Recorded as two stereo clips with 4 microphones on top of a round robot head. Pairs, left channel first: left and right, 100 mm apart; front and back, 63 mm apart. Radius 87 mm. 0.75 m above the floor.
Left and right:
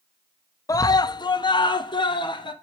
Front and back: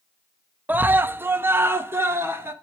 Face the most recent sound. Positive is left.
turn(degrees=130)